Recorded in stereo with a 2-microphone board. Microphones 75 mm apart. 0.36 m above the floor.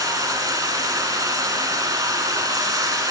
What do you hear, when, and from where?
0.0 s running water: 50° right (ahead or behind), 2 m